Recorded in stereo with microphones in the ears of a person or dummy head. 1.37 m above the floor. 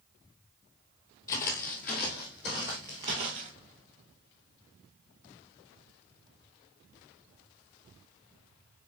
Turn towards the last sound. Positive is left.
turn(degrees=-30)  # may be behind; listen again after turning